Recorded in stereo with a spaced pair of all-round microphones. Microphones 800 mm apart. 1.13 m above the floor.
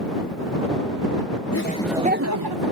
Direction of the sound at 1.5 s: 20° left (ahead or behind).